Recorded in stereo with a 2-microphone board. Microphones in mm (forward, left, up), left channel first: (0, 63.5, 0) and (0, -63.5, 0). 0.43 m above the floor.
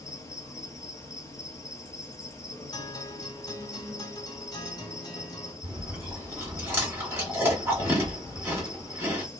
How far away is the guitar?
About 2 m.